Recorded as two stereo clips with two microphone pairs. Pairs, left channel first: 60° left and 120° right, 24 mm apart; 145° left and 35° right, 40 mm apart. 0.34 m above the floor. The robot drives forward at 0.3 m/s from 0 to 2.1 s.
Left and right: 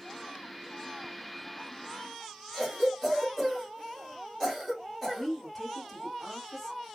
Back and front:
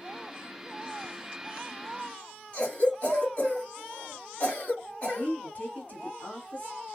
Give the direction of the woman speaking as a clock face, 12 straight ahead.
7 o'clock.